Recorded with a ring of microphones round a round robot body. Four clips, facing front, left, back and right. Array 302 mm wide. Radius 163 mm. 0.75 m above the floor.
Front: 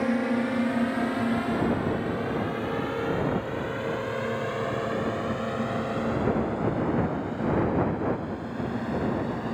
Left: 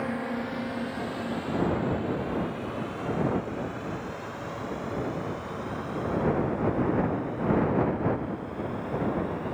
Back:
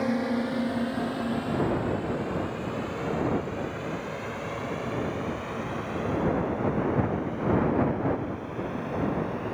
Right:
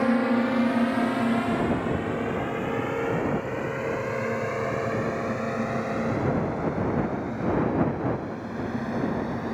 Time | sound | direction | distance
0.0 | a drone | 80° right | ?